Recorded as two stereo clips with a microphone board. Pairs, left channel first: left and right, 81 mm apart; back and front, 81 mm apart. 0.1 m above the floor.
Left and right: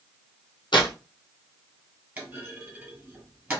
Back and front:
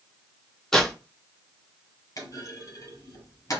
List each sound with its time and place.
0.7 s tearing paper: 100° left, 1.1 m
2.2 s a clunk: 155° right, 1.8 m